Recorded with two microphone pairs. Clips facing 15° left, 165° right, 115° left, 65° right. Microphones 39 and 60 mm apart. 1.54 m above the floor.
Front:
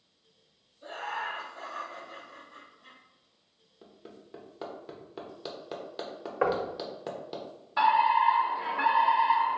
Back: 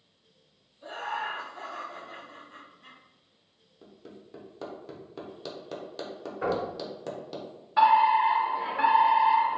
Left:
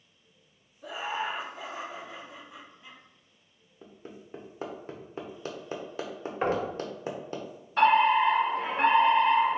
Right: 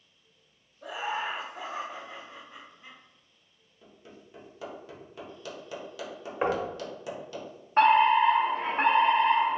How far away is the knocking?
About 0.7 m.